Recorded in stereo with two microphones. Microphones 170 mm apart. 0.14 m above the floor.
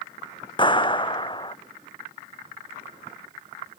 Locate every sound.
0.6 s a clap: 30° left (ahead or behind)